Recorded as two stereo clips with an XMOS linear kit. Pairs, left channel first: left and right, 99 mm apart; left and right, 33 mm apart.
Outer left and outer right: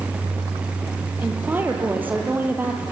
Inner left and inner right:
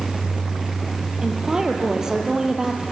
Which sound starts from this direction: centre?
A woman speaking, at 1.2 s.